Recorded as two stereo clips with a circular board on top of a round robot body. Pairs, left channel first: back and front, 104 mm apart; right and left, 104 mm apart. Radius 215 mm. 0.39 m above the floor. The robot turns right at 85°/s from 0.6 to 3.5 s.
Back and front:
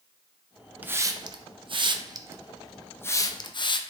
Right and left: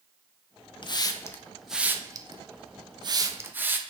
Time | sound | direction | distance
0.8 | a hiss | 70° right | 0.5 m